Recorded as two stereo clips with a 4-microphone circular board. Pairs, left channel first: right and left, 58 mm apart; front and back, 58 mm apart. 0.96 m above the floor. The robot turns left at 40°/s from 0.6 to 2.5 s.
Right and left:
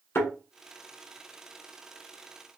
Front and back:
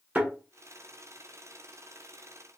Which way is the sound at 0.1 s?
130° right.